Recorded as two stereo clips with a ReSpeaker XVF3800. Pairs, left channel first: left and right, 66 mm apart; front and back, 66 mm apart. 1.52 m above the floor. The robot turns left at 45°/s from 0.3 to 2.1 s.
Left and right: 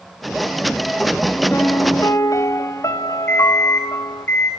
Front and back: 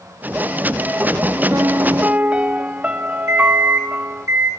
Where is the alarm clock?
145° left, 2 m.